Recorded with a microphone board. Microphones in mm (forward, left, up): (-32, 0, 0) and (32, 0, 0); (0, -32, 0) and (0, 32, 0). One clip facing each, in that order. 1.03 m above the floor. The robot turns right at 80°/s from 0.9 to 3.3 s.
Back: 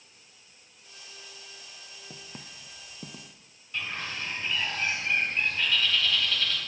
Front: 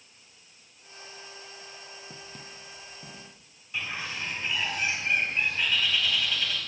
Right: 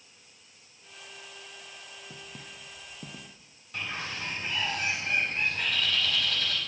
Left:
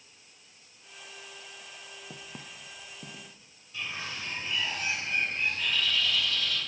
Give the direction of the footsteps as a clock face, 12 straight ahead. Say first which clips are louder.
Front 1 dB, left 1 dB; 8 o'clock.